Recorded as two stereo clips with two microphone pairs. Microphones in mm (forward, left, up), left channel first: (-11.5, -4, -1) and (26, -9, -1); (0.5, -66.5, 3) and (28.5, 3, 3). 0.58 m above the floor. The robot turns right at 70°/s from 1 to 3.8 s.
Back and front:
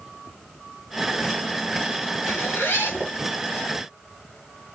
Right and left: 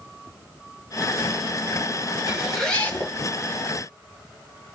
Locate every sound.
2.3 s a zipper: 140° left, 1.0 m; by 3.1 s 160° right, 1.0 m